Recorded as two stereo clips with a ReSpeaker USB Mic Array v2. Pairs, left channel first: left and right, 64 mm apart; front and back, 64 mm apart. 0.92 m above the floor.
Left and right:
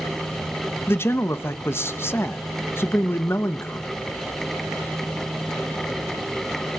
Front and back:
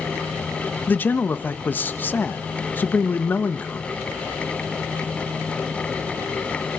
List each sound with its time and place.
0.9 s a man speaking: 50° left, 0.8 m